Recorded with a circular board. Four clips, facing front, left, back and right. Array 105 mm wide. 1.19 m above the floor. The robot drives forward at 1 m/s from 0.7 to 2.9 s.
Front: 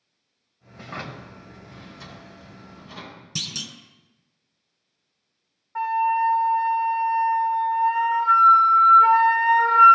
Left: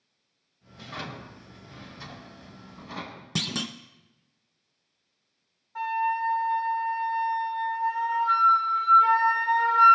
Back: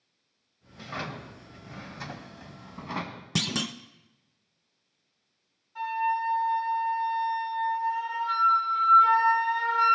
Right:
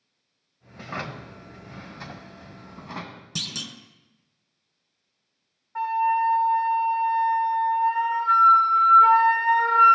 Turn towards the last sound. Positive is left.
turn(degrees=-25)